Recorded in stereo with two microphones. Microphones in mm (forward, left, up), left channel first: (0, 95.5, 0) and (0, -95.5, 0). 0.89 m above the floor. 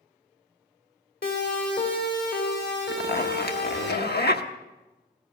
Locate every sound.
1.2 s a siren: 60° left (ahead or behind), 3 m; by 3.9 s 80° left, 5.5 m
2.9 s a zipper: 60° left (ahead or behind), 1.0 m